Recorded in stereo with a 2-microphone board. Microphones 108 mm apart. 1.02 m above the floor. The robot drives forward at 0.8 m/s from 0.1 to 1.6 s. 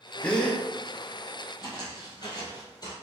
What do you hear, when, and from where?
0.2 s a gasp: 10° left (ahead or behind), 0.5 m; by 0.6 s 5° left (ahead or behind), 0.8 m
1.6 s footsteps: 40° left (ahead or behind), 1.5 m; by 2.9 s 35° left (ahead or behind), 1.3 m